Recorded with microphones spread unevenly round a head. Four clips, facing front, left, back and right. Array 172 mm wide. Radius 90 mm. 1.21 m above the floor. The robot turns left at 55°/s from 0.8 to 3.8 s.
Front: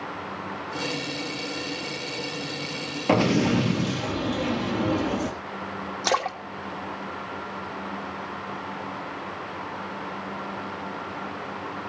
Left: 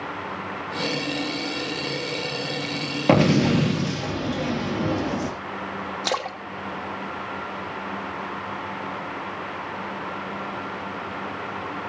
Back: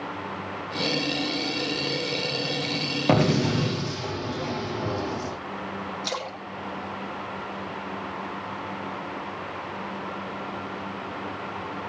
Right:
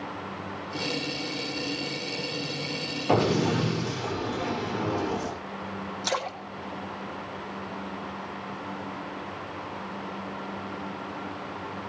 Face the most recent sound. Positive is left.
turn(degrees=40)